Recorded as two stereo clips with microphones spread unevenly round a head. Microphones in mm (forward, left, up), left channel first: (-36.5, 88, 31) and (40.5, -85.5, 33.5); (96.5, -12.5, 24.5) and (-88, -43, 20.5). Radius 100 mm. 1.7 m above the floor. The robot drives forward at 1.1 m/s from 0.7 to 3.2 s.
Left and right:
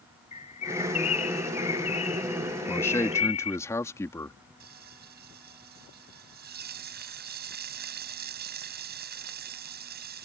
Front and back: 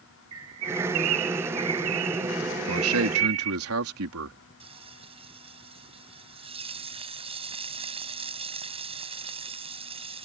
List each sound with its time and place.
0.3 s a bird: 175° left
2.7 s a man speaking: 165° right; by 4.4 s 170° right
4.6 s frying: 110° right